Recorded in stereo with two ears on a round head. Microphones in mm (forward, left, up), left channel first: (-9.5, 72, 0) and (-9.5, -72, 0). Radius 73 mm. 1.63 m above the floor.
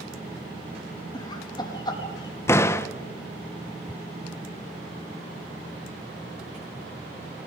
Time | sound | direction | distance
1.1 | laughter | 25° left (ahead or behind) | 3.5 m
2.5 | a door slam | 15° left (ahead or behind) | 0.8 m